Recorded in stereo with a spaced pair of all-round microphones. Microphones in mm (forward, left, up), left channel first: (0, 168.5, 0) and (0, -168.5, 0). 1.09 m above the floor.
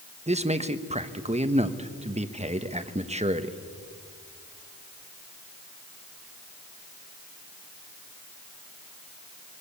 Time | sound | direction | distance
0.3 | a man speaking | 20° right (ahead or behind) | 1.1 m